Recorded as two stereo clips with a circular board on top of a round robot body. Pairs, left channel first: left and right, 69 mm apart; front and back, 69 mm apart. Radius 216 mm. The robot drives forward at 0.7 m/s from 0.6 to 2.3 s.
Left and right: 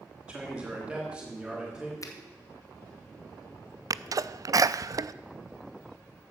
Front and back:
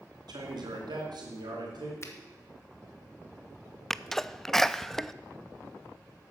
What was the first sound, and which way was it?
A man speaking, 170° right.